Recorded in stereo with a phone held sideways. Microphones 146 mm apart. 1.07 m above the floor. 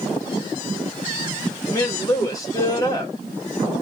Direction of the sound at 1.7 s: 20° left (ahead or behind).